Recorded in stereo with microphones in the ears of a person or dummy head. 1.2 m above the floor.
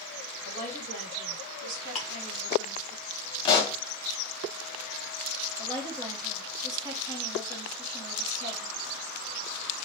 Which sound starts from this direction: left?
A pop, at 3.5 s.